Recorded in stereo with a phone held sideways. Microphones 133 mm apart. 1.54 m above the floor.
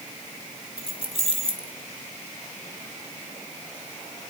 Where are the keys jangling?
45° left (ahead or behind), 1.7 m.